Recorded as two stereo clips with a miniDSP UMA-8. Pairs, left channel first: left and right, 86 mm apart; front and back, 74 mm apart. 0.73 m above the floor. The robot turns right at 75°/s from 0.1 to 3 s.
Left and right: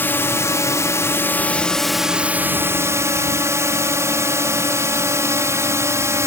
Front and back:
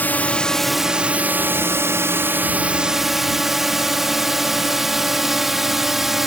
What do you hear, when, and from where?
0.0 s a drone: 45° left; by 6.3 s 95° right